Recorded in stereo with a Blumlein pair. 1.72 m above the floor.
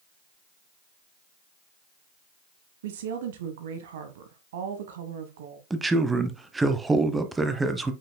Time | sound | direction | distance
2.8 | a woman speaking | 55° right | 1.2 m
5.7 | a man speaking | 10° right | 1.1 m